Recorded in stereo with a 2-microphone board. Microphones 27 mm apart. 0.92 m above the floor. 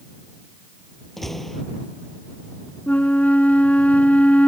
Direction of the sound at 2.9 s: 60° left (ahead or behind).